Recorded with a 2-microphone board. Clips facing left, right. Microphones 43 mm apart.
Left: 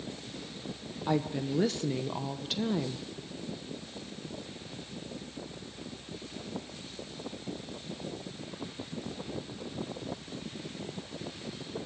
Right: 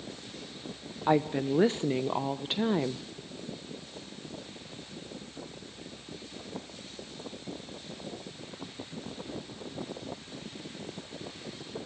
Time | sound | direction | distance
1.1 | a woman speaking | 30° right (ahead or behind) | 0.7 m